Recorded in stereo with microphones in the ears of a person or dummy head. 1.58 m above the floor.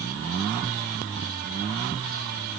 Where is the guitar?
I don't hear a guitar.